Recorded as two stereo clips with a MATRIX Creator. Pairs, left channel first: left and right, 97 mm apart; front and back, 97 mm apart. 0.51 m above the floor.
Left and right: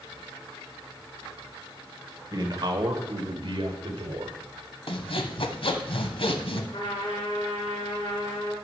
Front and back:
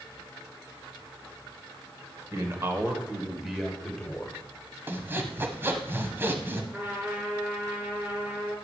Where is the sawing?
110° left, 1.1 m.